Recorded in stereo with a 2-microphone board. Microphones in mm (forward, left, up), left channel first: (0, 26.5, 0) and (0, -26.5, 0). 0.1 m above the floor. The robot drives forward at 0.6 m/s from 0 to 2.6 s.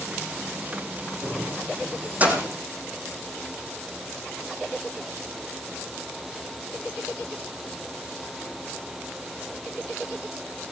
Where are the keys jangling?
35° right (ahead or behind), 3.5 m; by 2.5 s 25° right (ahead or behind), 4 m.